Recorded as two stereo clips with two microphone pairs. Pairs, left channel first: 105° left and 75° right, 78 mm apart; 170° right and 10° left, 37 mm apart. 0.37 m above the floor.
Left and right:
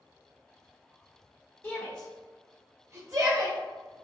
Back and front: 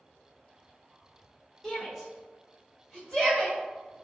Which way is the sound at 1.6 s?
115° left.